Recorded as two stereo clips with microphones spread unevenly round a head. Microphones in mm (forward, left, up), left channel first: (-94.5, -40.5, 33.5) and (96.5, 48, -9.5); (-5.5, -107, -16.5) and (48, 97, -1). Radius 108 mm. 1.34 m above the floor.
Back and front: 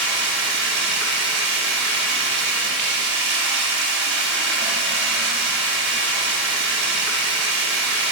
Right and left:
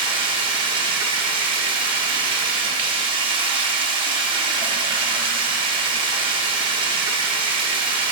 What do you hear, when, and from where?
0.0 s running water: 35° left, 0.9 m